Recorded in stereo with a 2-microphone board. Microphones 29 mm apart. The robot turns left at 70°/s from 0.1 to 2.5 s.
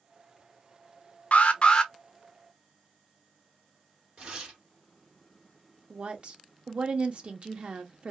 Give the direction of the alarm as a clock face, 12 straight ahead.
10 o'clock.